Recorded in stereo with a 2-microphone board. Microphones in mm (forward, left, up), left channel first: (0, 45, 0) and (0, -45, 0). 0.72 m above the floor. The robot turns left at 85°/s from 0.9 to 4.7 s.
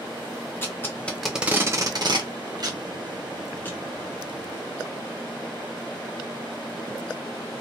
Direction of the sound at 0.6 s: 25° left (ahead or behind).